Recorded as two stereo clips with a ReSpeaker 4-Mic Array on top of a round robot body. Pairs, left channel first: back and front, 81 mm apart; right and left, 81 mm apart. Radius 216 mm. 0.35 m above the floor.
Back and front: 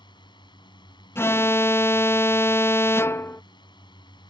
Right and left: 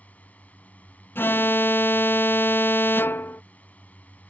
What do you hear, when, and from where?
0.0 s a drone: 160° right
1.1 s an alarm: 140° right